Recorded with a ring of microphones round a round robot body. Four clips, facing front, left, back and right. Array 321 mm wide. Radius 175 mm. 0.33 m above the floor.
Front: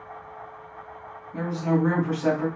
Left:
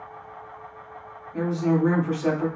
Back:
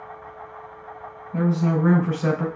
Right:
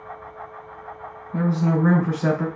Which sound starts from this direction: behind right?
A woman speaking, at 1.3 s.